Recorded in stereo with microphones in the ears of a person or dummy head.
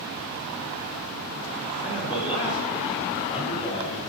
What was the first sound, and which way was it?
A man speaking, 35° left (ahead or behind).